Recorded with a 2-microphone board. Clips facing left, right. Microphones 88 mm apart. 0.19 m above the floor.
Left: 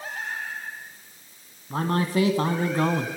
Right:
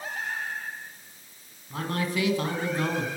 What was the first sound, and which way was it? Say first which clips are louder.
A man speaking: left 5 dB; 35° left (ahead or behind).